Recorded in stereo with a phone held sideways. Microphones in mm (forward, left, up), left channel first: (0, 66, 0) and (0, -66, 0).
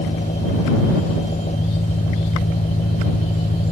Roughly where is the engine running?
Left.